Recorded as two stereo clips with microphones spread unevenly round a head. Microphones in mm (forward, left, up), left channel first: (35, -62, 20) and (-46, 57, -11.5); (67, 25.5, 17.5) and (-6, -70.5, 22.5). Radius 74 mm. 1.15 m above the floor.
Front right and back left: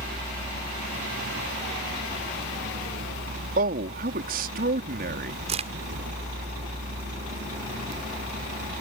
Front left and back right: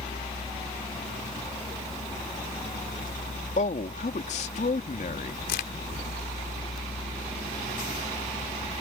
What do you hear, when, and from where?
0.0 s a vehicle: 105° left; by 8.8 s 110° left
3.6 s a man speaking: 95° left
5.5 s a crack: 70° left